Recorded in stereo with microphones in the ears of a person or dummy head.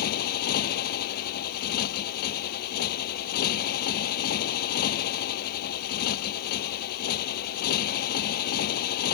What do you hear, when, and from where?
0.0 s a motorcycle: 50° left (ahead or behind)